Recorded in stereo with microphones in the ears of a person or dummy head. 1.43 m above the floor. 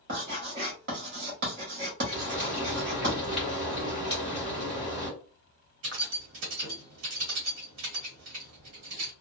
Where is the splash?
30° right (ahead or behind), 1.6 m.